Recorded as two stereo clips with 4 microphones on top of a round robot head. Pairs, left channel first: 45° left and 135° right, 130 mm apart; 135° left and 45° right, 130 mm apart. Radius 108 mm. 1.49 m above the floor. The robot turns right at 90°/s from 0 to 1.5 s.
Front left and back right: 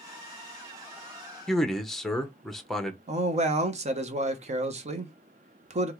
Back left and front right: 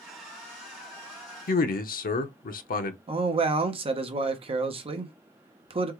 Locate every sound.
1.5 s a man speaking: 130° left, 0.7 m; by 3.0 s 135° left, 0.7 m
3.1 s a man speaking: 95° right, 0.9 m